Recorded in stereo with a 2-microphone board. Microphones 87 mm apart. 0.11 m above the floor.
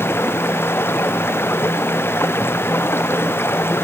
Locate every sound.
0.0 s running water: 25° left (ahead or behind)